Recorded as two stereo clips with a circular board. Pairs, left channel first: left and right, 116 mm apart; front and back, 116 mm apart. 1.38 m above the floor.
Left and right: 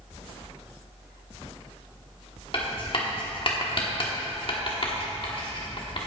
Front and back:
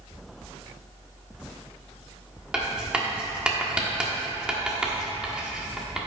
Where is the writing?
100° left, 1.2 m.